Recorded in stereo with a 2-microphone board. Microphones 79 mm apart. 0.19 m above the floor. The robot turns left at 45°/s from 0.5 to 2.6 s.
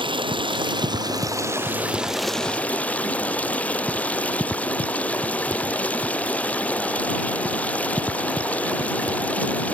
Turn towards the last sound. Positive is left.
turn(degrees=165)